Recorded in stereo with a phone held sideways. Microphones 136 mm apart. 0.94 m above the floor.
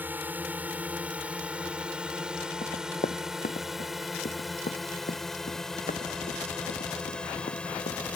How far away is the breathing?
No breathing in this recording.